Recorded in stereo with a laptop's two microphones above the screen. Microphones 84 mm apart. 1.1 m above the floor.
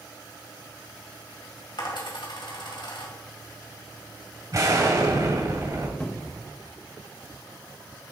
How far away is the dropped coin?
About 2 m.